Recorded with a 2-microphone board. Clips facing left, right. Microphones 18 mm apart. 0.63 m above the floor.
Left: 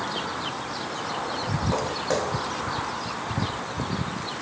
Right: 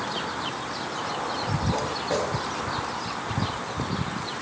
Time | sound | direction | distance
1.7 | footsteps | 65° left (ahead or behind) | 2.5 m